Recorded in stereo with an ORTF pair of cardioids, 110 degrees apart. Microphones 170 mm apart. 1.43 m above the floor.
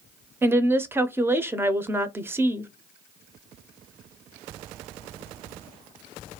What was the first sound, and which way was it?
A woman speaking, 15° right.